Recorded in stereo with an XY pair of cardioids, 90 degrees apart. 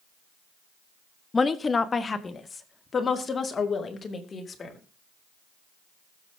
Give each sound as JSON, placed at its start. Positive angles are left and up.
{"t": 1.3, "sound": "a woman speaking", "azimuth_deg": 30, "distance_m": 1.3}